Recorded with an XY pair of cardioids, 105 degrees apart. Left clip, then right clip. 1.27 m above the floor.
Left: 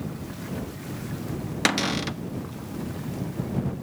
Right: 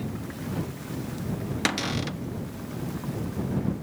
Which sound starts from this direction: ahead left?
A cupboard door, at 1.6 s.